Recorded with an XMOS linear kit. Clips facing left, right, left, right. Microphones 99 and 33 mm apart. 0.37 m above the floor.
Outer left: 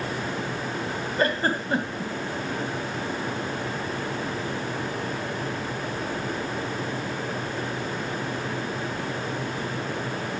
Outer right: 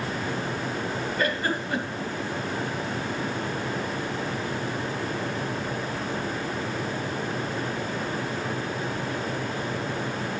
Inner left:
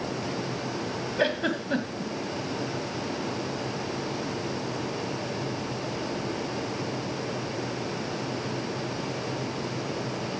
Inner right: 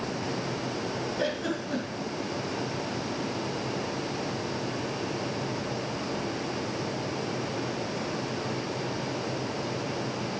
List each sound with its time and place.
1.2 s a giggle: 35° left (ahead or behind), 1.7 m